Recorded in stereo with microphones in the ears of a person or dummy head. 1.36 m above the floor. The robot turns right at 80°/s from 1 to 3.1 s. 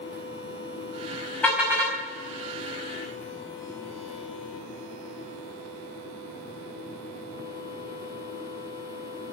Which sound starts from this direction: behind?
A car horn, at 1.4 s.